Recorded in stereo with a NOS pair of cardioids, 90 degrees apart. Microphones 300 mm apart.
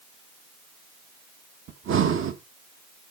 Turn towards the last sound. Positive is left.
turn(degrees=-45)